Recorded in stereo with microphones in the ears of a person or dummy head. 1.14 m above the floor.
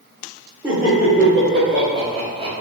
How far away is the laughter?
About 1.1 m.